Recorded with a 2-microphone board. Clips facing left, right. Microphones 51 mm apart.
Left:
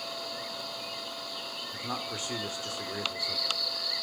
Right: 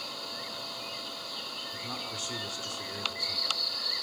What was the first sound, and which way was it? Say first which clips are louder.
A man speaking: left 5 dB; 25° left (ahead or behind).